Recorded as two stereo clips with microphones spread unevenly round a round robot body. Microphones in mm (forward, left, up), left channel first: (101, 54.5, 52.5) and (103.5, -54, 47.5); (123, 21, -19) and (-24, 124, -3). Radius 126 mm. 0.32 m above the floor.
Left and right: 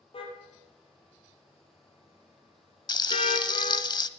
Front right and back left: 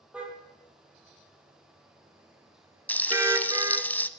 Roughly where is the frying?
Ahead left.